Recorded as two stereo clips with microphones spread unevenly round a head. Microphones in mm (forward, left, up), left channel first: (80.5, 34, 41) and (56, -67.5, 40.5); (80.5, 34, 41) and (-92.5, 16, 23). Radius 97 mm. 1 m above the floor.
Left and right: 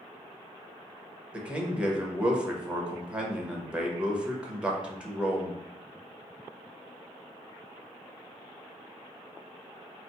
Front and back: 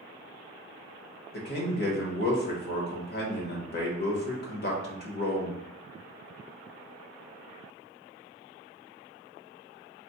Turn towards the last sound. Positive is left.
turn(degrees=-25)